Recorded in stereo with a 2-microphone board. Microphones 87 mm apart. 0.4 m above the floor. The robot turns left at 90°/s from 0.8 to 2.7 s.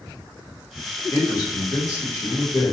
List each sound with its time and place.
1.1 s a man speaking: 135° left, 1.1 m; by 2.7 s 10° right, 1.1 m